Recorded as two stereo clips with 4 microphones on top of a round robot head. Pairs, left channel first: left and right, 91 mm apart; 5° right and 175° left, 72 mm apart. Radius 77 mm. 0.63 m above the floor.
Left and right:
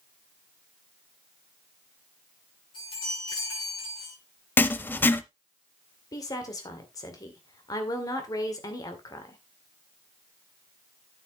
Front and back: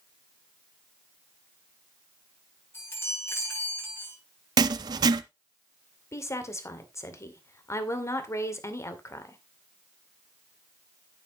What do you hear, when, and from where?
2.7 s a chime: 50° left, 7.5 m
4.6 s writing: 155° left, 0.6 m
6.1 s a woman speaking: 40° left, 2.5 m